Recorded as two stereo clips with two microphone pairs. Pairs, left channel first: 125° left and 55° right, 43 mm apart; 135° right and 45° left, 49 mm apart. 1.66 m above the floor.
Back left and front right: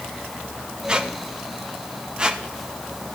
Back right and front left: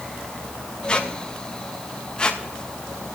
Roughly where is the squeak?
Right.